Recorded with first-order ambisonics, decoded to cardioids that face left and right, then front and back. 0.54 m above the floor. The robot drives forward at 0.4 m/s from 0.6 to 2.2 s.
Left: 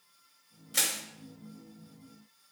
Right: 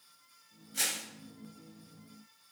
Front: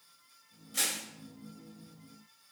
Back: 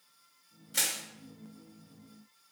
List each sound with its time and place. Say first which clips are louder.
0.7 s crushing: left 3 dB, back 1 dB; 100° left, 3 m